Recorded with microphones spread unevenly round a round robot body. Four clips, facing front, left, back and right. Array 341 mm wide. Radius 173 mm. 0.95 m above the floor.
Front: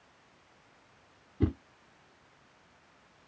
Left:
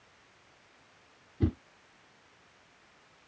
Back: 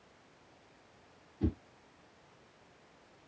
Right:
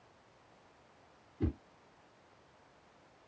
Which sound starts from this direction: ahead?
A whoosh, at 1.4 s.